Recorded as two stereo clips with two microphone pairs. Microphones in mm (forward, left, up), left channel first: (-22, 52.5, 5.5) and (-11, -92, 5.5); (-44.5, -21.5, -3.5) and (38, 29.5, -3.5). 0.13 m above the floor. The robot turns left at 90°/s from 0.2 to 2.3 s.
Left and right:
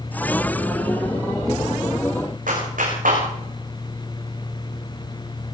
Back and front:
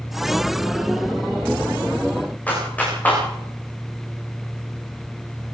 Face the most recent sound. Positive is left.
turn(degrees=-75)